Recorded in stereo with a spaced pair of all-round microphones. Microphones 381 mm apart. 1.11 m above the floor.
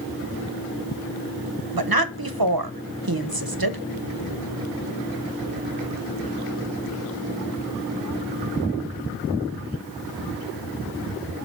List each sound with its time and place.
1.8 s a woman speaking: 60° right (ahead or behind), 0.8 m